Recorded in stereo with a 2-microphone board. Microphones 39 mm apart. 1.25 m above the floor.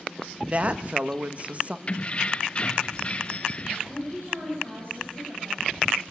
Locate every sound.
0.4 s a woman speaking: 35° right (ahead or behind), 1.3 m
1.9 s keys jangling: 30° left (ahead or behind), 0.8 m
3.9 s a woman speaking: 65° right (ahead or behind), 7.5 m